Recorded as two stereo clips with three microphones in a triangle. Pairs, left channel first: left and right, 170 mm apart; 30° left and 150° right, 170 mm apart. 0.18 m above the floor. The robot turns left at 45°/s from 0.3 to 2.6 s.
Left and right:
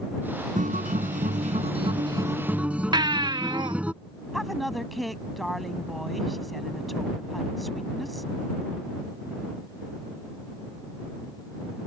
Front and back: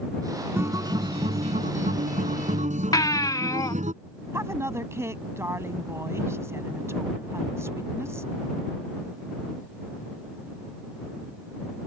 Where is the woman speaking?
Straight behind.